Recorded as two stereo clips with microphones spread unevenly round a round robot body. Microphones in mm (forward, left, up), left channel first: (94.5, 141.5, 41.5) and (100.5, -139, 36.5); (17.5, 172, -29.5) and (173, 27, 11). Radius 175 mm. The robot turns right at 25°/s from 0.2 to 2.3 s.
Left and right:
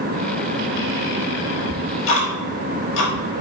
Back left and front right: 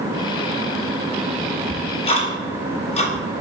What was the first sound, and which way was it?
Ticking, 90° left.